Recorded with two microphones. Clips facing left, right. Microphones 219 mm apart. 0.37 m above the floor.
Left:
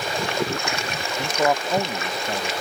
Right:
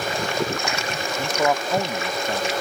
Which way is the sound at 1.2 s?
5° left (ahead or behind).